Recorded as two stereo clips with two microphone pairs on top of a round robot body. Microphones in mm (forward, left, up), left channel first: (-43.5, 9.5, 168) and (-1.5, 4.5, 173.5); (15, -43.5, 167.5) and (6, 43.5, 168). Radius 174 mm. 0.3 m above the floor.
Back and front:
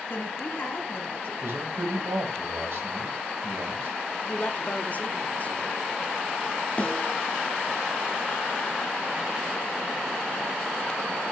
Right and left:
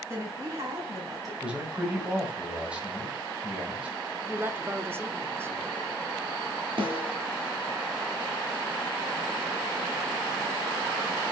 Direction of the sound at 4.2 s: 150° left.